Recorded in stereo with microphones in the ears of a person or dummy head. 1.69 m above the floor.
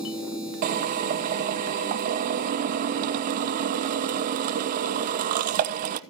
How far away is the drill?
About 0.7 m.